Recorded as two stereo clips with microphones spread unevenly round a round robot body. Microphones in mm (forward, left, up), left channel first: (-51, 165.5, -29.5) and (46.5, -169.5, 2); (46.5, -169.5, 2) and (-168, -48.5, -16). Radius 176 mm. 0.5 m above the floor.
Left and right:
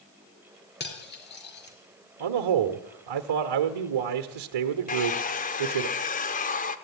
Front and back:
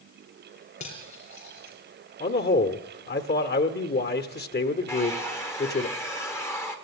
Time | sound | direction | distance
0.8 | cutlery clinking | 40° left | 4.5 m
2.2 | a man speaking | 80° right | 1.3 m
4.9 | a hair dryer | 55° left | 1.0 m